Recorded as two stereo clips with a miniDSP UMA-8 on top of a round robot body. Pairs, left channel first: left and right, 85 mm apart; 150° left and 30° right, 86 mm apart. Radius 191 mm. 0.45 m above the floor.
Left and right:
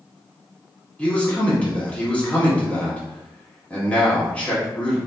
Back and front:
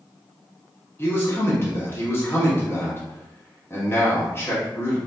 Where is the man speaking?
145° left, 1.4 m.